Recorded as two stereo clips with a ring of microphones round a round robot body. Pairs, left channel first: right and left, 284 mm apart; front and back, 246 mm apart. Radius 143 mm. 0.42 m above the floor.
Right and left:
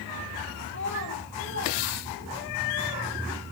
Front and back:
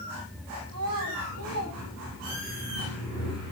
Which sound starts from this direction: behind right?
A child speaking, at 0.7 s.